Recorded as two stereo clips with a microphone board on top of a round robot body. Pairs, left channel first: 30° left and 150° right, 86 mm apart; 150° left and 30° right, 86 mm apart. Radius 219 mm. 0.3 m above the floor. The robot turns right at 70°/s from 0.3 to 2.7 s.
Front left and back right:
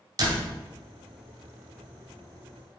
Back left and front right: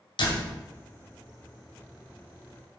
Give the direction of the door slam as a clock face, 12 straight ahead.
6 o'clock.